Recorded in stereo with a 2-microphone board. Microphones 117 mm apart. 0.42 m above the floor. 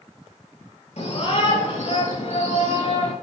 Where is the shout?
70° left (ahead or behind), 7.5 m; by 3.1 s 80° left, 5.5 m.